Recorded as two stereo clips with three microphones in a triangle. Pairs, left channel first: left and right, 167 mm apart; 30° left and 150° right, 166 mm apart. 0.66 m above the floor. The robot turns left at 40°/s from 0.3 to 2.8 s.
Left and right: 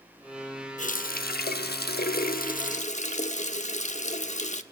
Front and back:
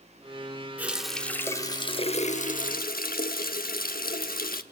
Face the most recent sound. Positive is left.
turn(degrees=50)